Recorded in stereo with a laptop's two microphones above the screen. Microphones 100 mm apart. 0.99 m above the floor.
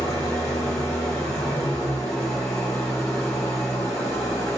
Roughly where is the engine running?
Left.